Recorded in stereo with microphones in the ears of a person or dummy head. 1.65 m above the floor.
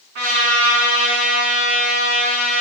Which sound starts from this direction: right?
A trumpet, at 0.1 s.